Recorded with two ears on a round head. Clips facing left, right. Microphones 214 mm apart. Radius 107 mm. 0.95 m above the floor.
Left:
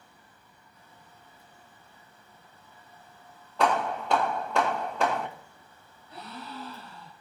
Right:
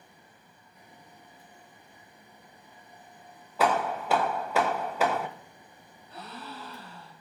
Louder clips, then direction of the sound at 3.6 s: Even; 5° right (ahead or behind).